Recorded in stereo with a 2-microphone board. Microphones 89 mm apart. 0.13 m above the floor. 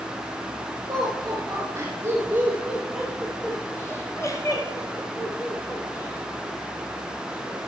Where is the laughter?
40° right (ahead or behind), 2.5 m; by 7.6 s 50° left (ahead or behind), 4 m.